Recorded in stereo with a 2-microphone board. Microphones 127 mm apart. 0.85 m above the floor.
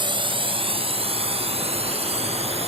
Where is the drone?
40° right (ahead or behind); by 2.7 s 55° right (ahead or behind).